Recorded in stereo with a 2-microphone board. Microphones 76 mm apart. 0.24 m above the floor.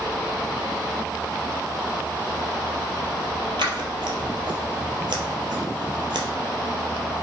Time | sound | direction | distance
3.6 | scissors | 85° right | 0.8 m